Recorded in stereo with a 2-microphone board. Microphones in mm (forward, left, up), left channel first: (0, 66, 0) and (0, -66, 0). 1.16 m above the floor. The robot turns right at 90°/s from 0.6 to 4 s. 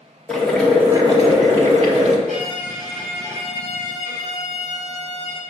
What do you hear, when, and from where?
0.3 s boiling: 170° left, 1.9 m; by 2.2 s 45° right, 1.9 m
2.3 s a violin: 65° right, 3.5 m; by 5.4 s 90° left, 3.5 m